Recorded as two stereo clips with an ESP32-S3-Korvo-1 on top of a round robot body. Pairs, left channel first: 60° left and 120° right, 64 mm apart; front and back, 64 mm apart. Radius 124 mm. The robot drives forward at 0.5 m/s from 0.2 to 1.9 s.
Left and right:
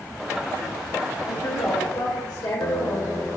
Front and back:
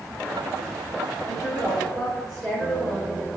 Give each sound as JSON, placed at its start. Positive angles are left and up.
{"t": 1.3, "sound": "a woman speaking", "azimuth_deg": 85, "distance_m": 1.7}